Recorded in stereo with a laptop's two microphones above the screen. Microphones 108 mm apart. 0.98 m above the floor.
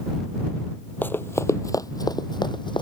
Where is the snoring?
I don't hear snoring.